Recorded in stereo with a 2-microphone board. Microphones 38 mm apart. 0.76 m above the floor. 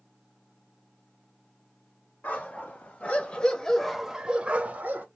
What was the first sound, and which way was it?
A dog barking, 45° left (ahead or behind).